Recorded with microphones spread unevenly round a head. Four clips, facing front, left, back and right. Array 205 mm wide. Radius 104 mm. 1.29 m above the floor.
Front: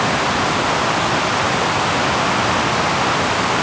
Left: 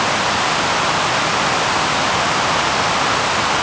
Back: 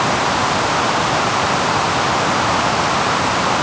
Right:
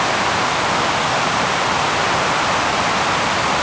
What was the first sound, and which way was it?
Only background noise.